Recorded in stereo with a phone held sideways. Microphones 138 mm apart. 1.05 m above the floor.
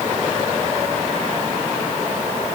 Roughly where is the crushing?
I don't hear crushing.